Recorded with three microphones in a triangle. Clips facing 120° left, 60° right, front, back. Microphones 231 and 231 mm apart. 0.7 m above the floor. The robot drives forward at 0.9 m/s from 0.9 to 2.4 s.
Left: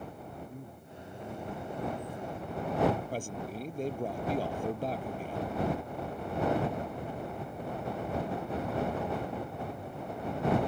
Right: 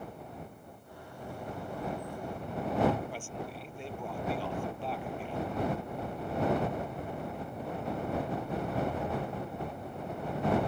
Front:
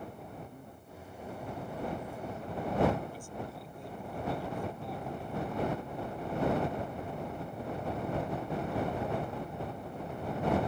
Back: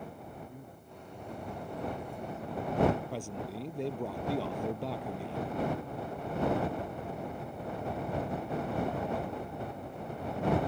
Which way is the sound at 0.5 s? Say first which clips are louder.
Left 4 dB, back 1 dB; 100° left.